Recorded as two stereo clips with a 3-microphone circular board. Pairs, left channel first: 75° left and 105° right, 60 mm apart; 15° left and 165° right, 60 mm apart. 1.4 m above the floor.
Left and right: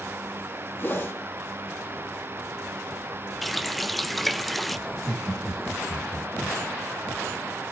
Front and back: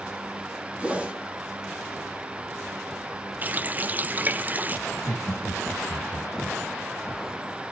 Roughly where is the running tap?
Behind.